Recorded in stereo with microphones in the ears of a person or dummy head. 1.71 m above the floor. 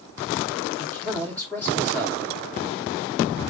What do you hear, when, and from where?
0.8 s a man speaking: 10° left (ahead or behind), 1.9 m